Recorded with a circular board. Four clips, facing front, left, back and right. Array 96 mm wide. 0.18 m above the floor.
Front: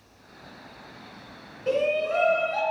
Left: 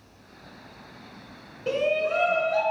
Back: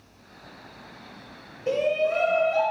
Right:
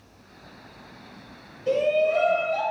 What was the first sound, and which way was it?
A shout, 75° left.